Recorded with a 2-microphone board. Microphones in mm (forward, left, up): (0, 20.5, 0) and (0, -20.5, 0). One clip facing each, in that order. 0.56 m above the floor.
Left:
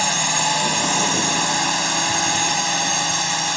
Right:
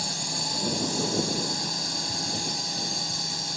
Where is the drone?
75° left (ahead or behind).